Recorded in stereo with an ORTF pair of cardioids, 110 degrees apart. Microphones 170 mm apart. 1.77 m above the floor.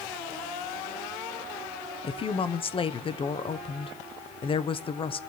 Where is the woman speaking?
30° left, 1.2 m.